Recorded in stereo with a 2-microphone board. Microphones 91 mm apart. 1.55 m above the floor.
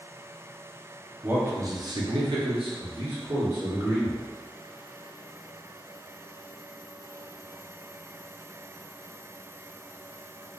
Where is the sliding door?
I don't hear a sliding door.